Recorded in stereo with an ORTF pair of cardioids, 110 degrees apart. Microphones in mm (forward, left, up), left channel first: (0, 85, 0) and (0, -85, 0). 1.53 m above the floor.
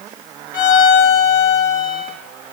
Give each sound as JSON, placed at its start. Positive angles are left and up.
{"t": 0.5, "sound": "a violin", "azimuth_deg": 55, "distance_m": 2.5}